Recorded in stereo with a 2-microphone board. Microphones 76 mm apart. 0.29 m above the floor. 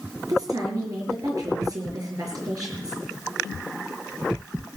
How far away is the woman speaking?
About 5.5 m.